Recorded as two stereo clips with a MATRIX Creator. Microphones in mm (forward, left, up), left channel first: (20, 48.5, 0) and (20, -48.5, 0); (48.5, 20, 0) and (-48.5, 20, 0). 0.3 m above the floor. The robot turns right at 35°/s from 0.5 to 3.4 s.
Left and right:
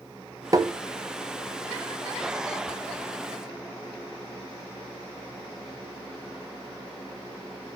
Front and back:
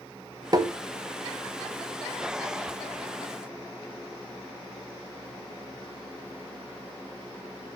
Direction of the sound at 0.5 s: 135° right.